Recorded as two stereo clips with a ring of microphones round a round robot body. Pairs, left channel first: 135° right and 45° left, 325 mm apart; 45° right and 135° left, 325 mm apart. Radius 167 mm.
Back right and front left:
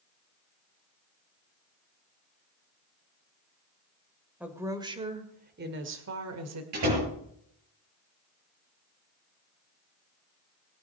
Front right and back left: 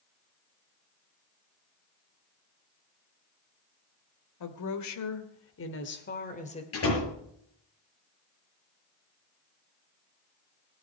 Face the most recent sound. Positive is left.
turn(degrees=5)